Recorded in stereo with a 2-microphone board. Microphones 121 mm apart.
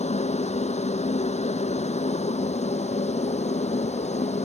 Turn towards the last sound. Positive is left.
turn(degrees=65)  # may be behind; listen again after turning